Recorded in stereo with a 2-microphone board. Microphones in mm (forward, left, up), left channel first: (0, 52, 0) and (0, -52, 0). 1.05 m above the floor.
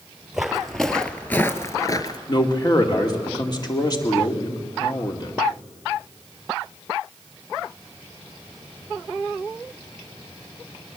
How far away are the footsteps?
About 1.7 m.